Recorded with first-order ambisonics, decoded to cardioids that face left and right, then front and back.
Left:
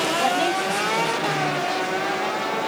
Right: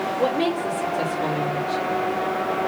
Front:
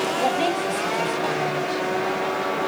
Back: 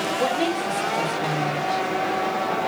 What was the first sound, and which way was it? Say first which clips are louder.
A woman speaking: left 1 dB, front 1 dB; 105° left.